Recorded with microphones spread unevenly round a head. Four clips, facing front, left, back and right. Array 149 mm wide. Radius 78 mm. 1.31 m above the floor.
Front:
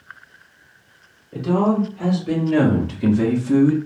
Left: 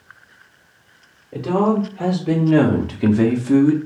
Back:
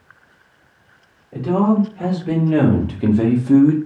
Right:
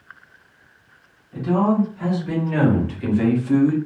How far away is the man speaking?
About 1.7 m.